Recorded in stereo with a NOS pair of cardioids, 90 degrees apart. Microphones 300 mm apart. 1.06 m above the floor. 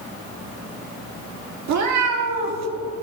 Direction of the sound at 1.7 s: 65° right.